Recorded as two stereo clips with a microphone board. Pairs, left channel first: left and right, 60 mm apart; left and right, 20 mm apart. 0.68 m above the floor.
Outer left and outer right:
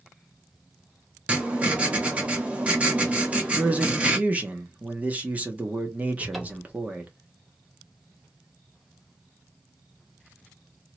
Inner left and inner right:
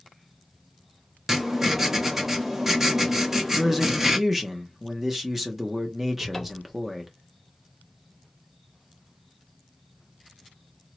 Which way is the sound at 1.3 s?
20° right (ahead or behind).